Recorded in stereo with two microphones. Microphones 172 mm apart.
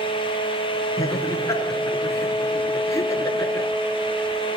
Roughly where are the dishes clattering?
No dishes clattering in this recording.